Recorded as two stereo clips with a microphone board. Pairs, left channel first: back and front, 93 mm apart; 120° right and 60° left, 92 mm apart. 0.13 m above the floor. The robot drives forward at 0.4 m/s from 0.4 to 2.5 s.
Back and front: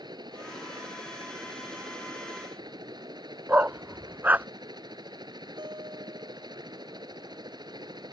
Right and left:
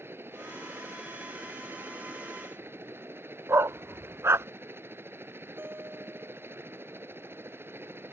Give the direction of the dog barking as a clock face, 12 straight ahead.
10 o'clock.